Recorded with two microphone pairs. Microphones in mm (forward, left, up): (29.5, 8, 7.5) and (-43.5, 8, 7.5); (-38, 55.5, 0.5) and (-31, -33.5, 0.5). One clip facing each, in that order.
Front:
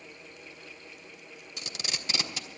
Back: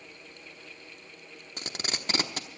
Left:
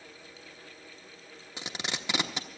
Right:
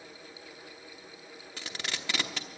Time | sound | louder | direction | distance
1.6 | tape being pulled | back 3 dB, left 2 dB | 160° left | 0.9 m